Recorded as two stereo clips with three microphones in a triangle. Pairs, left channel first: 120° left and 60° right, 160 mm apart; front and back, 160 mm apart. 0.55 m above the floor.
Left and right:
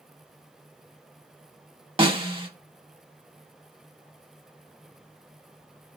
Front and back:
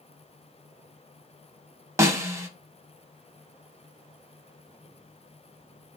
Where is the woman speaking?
I don't hear a woman speaking.